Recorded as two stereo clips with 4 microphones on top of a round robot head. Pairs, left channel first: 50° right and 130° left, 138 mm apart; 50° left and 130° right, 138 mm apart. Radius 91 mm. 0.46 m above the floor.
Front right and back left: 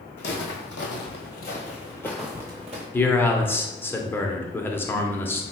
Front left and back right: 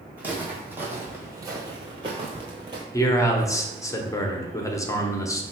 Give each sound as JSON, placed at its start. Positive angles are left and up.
{"t": 0.2, "sound": "footsteps", "azimuth_deg": -55, "distance_m": 1.2}
{"t": 2.9, "sound": "a man speaking", "azimuth_deg": 10, "distance_m": 0.7}